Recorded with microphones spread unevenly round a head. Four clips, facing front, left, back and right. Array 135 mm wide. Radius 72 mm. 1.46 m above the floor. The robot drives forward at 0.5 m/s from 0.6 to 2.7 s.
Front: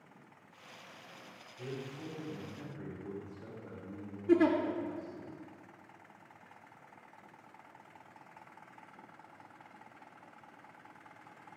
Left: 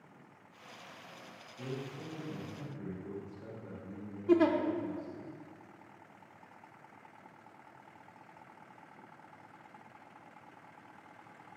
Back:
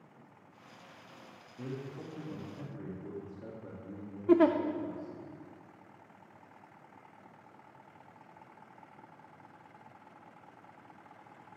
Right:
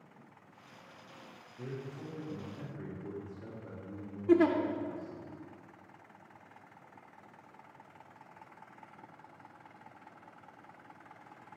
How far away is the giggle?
About 0.7 m.